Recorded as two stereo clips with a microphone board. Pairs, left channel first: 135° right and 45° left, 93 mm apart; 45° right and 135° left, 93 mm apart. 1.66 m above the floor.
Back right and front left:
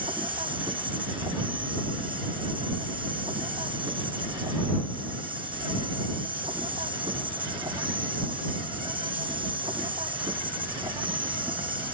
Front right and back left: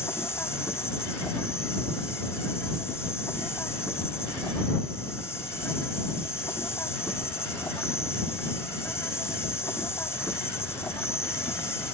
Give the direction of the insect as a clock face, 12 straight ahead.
11 o'clock.